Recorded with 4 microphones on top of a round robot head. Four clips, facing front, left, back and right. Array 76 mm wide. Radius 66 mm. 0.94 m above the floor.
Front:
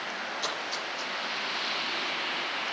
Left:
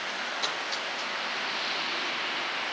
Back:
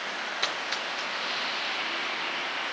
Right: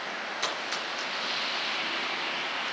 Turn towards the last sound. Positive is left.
turn(degrees=-165)